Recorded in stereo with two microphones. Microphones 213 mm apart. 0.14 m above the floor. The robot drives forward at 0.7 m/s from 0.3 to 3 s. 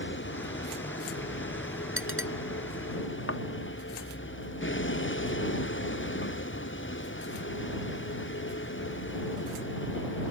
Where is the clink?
75° right (ahead or behind).